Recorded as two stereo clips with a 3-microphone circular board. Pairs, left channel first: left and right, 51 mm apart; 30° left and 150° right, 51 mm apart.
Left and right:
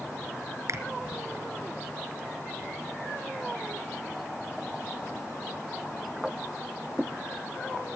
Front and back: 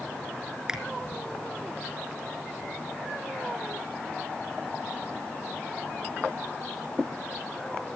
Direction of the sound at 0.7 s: 80° right.